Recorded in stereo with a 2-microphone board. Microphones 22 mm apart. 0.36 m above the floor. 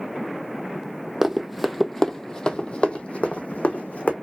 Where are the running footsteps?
20° right (ahead or behind), 0.7 m; by 4.1 s 70° left (ahead or behind), 1.3 m.